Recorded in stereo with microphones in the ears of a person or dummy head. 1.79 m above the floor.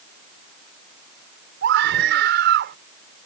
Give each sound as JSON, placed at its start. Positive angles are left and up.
{"t": 1.6, "sound": "a scream", "side_deg": -65}